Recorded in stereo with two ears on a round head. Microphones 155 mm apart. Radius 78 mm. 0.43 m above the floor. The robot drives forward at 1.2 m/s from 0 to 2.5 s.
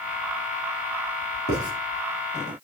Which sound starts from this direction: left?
Writing, at 1.5 s.